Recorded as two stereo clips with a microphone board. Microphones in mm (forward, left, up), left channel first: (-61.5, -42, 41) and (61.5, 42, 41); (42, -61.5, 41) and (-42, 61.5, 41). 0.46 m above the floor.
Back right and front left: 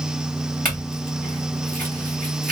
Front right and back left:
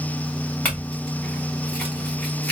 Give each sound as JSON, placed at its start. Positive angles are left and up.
{"t": 0.7, "sound": "a clink", "azimuth_deg": 25, "distance_m": 1.8}